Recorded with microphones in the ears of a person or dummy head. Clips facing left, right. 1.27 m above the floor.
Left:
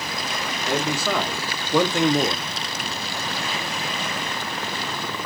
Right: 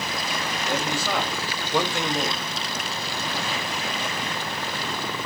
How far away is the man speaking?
About 1.5 m.